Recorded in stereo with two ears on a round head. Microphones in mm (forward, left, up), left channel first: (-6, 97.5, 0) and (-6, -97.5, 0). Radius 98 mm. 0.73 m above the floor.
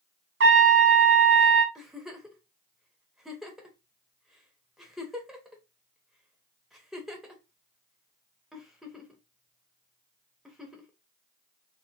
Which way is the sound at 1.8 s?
Centre (ahead or behind).